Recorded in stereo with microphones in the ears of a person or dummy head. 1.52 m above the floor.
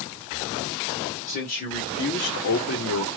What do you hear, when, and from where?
1.3 s a man speaking: 40° left (ahead or behind), 1.7 m; by 3.1 s 75° left (ahead or behind), 1.2 m